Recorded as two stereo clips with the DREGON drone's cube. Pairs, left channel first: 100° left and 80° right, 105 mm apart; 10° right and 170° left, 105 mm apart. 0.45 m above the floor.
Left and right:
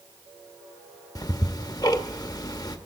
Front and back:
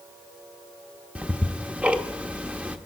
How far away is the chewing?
I don't hear chewing.